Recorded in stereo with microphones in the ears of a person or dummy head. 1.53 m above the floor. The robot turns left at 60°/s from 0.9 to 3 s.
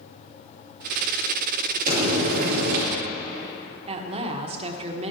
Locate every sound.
1.9 s frying: 50° right, 3 m; by 2.9 s 110° right, 3 m
3.9 s a woman speaking: 30° right (ahead or behind), 1.2 m